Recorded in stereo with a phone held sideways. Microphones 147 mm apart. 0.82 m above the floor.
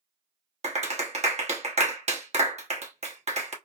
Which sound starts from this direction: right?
A clap, at 0.6 s.